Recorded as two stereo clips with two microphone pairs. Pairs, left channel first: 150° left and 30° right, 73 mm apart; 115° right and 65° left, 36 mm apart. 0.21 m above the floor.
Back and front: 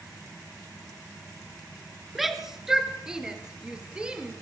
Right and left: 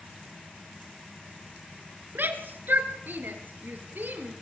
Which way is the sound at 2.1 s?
60° left.